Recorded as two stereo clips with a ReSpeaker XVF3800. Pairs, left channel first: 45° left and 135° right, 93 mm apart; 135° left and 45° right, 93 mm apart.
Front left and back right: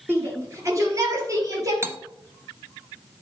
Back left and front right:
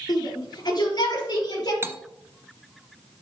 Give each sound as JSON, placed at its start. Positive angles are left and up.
{"t": 0.1, "sound": "a shout", "azimuth_deg": 165, "distance_m": 2.5}
{"t": 1.8, "sound": "cutlery clinking", "azimuth_deg": -90, "distance_m": 0.7}